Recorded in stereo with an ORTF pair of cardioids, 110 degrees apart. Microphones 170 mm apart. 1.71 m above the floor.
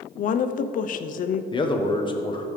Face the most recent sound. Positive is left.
turn(degrees=30)